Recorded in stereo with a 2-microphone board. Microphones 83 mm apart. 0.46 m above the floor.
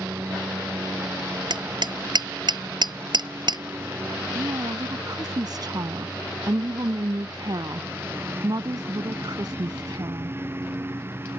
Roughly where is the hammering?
Right.